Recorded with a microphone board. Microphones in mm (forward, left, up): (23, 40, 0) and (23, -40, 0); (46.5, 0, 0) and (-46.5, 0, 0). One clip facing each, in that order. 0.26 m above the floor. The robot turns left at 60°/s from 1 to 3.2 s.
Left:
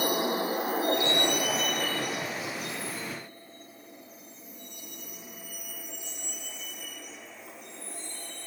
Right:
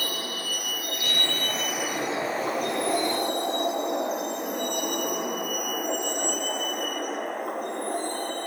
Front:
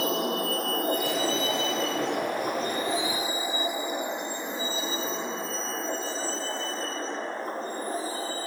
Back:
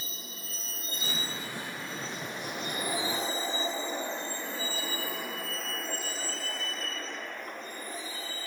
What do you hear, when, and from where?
0.0 s a vehicle: 20° left; by 8.5 s 55° right